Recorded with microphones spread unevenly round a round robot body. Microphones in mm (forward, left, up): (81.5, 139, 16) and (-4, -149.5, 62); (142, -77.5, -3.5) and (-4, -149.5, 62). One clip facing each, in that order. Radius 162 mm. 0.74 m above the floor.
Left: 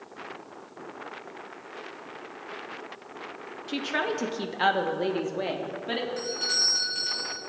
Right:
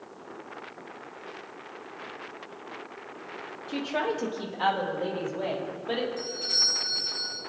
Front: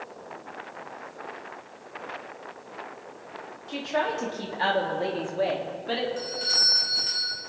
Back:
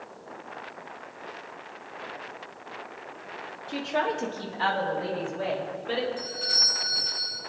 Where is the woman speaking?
105° left, 1.4 m; by 6.1 s 40° left, 2 m.